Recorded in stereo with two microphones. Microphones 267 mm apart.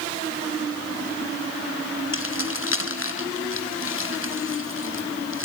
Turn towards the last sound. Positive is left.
turn(degrees=50)  # may be behind; listen again after turning